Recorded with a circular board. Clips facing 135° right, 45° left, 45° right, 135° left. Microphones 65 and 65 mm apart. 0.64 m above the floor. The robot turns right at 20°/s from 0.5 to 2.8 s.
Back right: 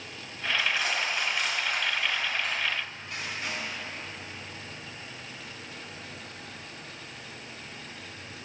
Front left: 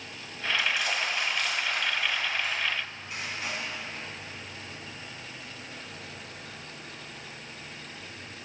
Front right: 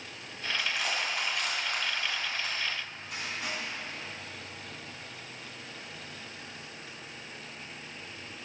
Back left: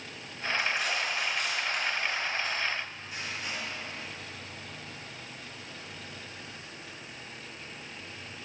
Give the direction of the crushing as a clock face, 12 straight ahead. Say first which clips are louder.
Back right 1 dB, back left 1 dB; 3 o'clock.